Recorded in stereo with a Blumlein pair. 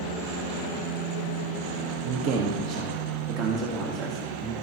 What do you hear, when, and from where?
2.0 s a man speaking: 45° right, 1.1 m; by 4.5 s 35° right, 3 m